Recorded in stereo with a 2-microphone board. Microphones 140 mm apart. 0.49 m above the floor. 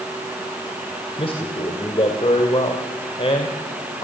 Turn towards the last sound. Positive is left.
turn(degrees=40)  # may be behind; listen again after turning